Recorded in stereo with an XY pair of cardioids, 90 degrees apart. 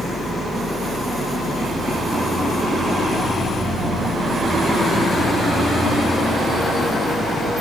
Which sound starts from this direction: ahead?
A fan, at 0.0 s.